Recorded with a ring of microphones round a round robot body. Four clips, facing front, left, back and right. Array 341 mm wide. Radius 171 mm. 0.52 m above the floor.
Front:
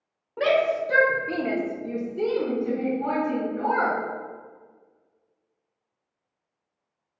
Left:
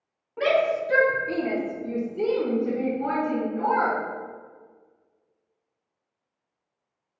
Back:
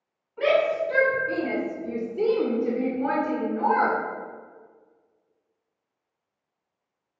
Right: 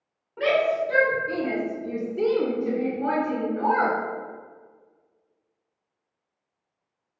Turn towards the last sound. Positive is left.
turn(degrees=-140)